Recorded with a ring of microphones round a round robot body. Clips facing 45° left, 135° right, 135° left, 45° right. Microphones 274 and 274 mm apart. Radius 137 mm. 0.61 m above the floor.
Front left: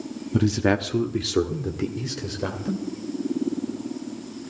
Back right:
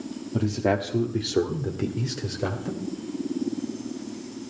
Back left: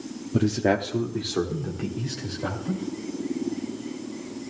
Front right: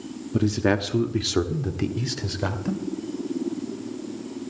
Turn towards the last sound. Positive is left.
turn(degrees=-45)